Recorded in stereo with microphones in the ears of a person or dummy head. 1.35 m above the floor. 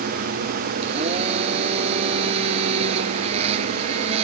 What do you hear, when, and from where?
0.8 s a blender: 35° right (ahead or behind)